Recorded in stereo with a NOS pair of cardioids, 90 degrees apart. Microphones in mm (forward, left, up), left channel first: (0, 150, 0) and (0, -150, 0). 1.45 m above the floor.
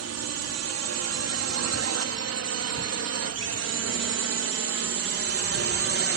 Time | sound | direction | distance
0.0 | a drone | 60° right | ?